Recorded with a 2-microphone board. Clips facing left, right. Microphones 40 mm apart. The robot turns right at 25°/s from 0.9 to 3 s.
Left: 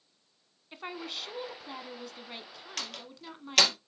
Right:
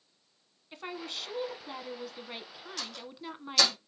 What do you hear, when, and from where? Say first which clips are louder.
0.7 s a woman speaking: even; 5° left (ahead or behind), 1.1 m; by 3.8 s 20° right (ahead or behind), 1.1 m
2.8 s a door slam: left 1 dB; 65° left (ahead or behind), 3 m; by 3.7 s 60° left (ahead or behind), 3 m